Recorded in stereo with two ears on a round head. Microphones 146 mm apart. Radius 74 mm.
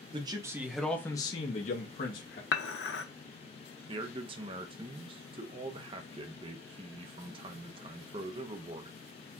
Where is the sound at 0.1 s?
30° right (ahead or behind), 0.9 m; by 2.4 s 60° left (ahead or behind), 1.1 m.